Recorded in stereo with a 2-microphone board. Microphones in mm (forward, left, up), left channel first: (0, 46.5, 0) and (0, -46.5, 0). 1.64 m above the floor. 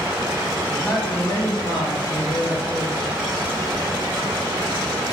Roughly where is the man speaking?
Centre.